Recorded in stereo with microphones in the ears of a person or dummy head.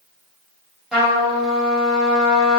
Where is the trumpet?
Centre (ahead or behind), 1.0 m.